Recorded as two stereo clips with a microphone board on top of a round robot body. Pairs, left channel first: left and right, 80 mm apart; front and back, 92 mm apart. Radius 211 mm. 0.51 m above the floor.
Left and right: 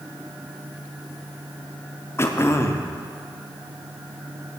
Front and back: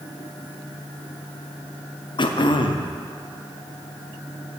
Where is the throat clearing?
30° left, 0.8 m.